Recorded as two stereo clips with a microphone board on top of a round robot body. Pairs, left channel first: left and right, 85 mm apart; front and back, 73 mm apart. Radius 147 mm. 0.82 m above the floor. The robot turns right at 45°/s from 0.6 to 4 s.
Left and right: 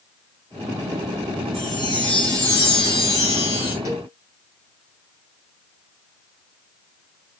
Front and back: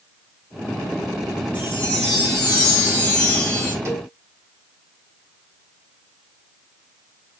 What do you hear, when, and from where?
1.5 s a chime: 5° left, 1.4 m; by 3.8 s 105° left, 1.4 m
3.9 s a cowbell: 130° right, 1.1 m; by 4.1 s 125° right, 1.1 m